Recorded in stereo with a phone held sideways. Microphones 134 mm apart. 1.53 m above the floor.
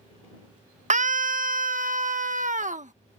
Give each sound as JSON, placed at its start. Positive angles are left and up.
{"t": 0.9, "sound": "a scream", "side_deg": -60}